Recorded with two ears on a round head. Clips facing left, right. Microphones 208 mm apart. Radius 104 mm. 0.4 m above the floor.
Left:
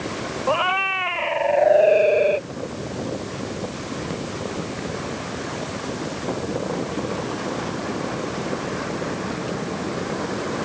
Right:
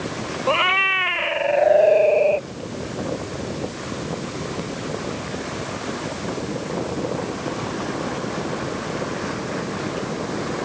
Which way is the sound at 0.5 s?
35° right (ahead or behind).